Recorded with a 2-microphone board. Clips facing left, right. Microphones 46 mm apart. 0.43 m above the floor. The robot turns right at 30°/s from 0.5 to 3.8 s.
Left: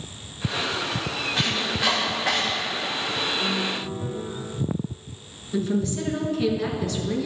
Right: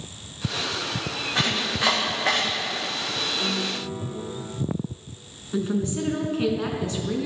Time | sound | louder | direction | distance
1.4 | chopping | right 2 dB | 75° right (ahead or behind) | 8 m
3.4 | a piano | left 1 dB | 45° right (ahead or behind) | 2.5 m
5.5 | a woman speaking | left 1 dB | 30° right (ahead or behind) | 4 m